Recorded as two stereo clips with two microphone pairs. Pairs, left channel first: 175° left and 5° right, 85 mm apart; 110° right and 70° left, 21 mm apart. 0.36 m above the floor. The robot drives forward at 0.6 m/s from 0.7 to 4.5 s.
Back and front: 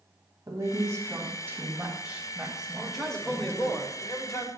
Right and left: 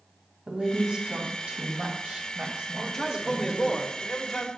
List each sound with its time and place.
0.5 s a woman speaking: 40° left, 2.0 m; by 3.8 s 115° left, 1.5 m
2.8 s a man speaking: 75° right, 1.0 m; by 4.5 s 160° right, 1.3 m